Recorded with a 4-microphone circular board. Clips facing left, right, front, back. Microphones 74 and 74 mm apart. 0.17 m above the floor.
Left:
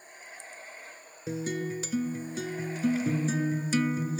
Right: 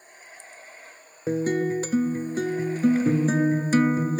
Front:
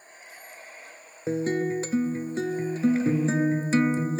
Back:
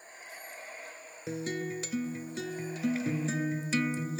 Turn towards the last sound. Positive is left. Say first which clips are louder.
# right 9 dB, front 9 dB
turn(degrees=-45)